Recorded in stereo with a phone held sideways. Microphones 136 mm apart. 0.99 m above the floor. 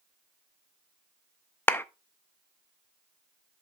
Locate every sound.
1.7 s a clap: 15° left (ahead or behind), 0.5 m